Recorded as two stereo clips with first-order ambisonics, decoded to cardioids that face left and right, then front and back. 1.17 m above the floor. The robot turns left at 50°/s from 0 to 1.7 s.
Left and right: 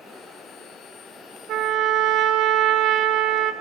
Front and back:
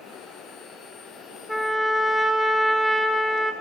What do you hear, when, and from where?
1.5 s a trumpet: 85° right, 0.6 m; by 3.5 s 95° right, 0.6 m